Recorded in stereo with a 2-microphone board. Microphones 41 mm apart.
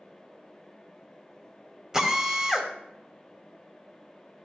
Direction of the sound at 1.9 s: 15° right (ahead or behind).